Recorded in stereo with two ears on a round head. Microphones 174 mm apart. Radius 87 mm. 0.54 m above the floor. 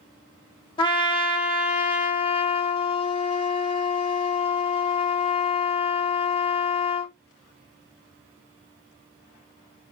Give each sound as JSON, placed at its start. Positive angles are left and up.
{"t": 0.8, "sound": "a trumpet", "side_deg": 25, "distance_m": 0.9}